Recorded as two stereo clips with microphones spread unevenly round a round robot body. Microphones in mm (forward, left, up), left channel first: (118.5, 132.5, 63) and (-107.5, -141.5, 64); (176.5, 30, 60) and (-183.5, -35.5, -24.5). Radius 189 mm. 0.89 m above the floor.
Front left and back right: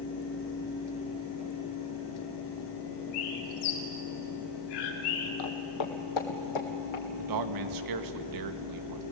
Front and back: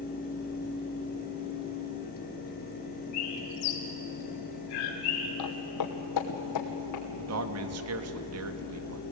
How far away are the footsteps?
About 1.7 m.